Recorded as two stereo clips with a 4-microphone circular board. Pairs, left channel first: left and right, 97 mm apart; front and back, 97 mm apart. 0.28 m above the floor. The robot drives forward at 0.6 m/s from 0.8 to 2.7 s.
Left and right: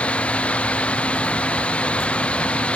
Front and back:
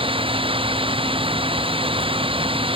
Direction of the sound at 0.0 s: 165° left.